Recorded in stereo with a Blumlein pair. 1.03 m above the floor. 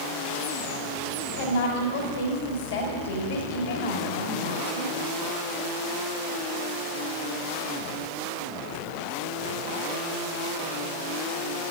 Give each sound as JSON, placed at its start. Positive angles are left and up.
{"t": 1.4, "sound": "a woman speaking", "azimuth_deg": 55, "distance_m": 4.0}